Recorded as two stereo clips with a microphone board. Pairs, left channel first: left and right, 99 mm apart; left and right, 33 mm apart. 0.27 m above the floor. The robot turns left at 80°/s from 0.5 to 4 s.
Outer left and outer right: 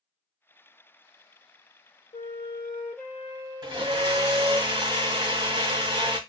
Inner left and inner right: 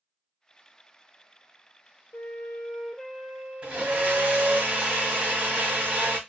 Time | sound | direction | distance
2.1 | a flute | 75° left | 0.8 m
3.6 | a blender | 65° right | 1.6 m